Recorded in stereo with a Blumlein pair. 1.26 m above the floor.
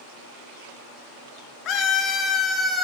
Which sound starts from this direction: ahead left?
A scream, at 1.6 s.